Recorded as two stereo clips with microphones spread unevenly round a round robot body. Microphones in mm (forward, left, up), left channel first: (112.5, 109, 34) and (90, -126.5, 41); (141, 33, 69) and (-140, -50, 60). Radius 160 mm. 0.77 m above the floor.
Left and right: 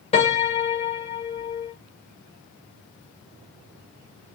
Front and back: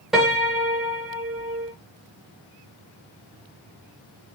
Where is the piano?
105° left, 0.5 m.